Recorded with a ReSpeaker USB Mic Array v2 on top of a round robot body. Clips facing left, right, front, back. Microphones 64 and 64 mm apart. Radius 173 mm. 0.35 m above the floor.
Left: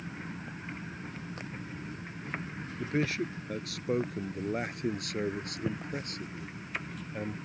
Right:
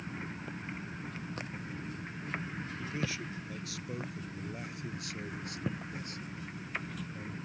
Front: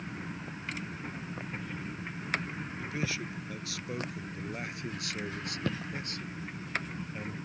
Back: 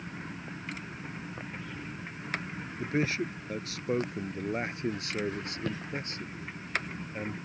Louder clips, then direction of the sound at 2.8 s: Left 9 dB, back 7 dB; 130° left.